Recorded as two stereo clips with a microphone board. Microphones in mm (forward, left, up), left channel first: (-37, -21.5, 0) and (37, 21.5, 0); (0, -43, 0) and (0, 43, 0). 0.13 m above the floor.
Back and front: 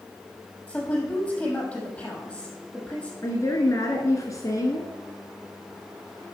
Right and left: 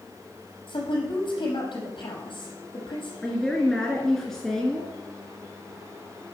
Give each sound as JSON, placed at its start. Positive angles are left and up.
{"t": 0.7, "sound": "a woman speaking", "azimuth_deg": -80, "distance_m": 5.0}
{"t": 3.2, "sound": "a woman speaking", "azimuth_deg": -170, "distance_m": 1.7}